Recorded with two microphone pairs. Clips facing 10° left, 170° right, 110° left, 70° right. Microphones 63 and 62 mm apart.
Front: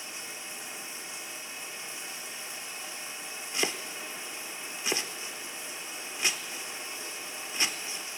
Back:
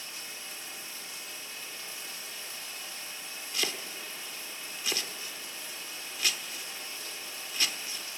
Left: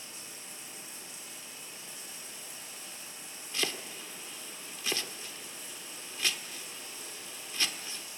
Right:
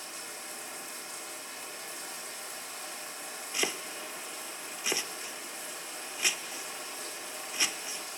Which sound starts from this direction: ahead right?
Running water, at 0.0 s.